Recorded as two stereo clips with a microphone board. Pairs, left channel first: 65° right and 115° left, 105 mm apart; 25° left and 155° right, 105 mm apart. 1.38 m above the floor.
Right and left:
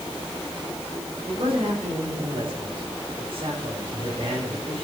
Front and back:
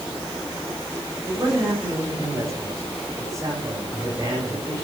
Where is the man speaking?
140° left, 8.5 m; by 4.8 s 145° left, 6 m.